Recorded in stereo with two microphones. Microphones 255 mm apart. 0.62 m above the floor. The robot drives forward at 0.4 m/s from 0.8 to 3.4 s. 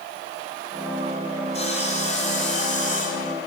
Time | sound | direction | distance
1.5 | sawing | 25° left (ahead or behind) | 2.5 m